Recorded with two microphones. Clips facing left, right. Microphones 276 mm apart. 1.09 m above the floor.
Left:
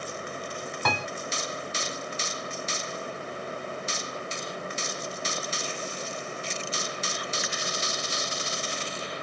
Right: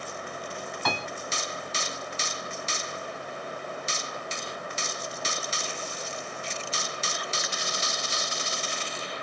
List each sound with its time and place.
0.8 s a piano: 55° left (ahead or behind), 1.2 m